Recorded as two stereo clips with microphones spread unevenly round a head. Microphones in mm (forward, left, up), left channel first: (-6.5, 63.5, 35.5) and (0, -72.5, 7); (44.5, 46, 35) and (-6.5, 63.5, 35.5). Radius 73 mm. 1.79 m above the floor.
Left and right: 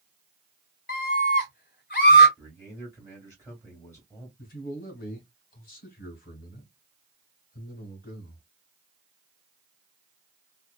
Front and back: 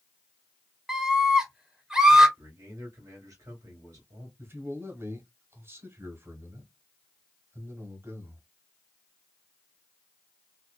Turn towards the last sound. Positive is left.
turn(degrees=120)